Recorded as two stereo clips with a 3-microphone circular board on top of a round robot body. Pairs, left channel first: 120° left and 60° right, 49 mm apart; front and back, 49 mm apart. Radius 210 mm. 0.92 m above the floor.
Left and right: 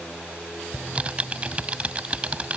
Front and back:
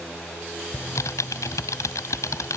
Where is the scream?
I don't hear a scream.